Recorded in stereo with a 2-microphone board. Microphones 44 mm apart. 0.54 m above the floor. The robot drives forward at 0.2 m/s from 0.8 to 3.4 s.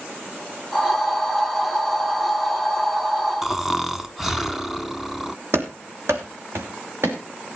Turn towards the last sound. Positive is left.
turn(degrees=-70)  # may be behind; listen again after turning